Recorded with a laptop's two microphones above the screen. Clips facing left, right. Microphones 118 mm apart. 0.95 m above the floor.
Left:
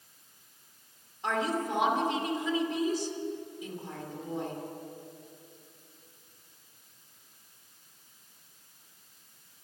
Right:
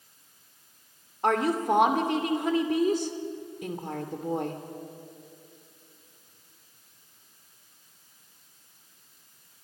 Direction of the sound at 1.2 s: 60° right (ahead or behind).